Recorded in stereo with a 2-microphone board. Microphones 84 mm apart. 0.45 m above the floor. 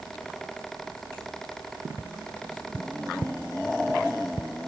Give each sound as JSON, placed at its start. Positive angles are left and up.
{"t": 2.0, "sound": "tapping", "side_deg": 15}